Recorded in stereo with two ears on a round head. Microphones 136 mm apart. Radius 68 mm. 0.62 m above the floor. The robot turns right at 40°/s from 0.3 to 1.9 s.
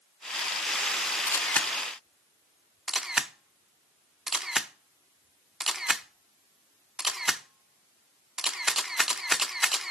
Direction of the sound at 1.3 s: 20° left (ahead or behind).